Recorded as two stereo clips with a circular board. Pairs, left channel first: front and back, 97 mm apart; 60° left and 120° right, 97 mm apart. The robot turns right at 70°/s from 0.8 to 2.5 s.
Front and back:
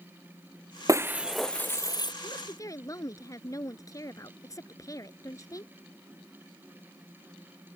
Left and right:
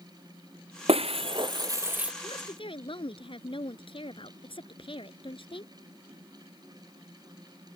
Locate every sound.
0.9 s breaking glass: 125° right; by 2.1 s 40° right
2.2 s a woman speaking: 30° left; by 5.7 s 50° left